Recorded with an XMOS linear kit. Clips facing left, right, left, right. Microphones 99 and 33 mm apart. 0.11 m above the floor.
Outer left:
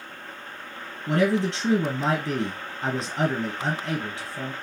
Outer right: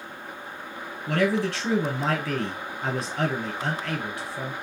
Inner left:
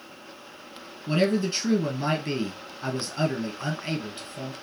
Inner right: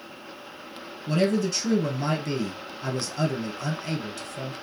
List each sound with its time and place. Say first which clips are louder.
1.1 s a man speaking: outer left 1 dB, even; 15° left (ahead or behind), 1.3 m